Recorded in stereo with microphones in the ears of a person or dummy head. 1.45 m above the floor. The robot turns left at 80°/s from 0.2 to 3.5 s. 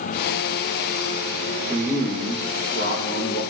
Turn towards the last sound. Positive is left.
turn(degrees=50)